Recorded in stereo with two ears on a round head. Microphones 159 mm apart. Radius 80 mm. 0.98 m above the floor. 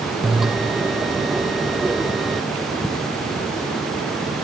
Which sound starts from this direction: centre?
A bell, at 0.2 s.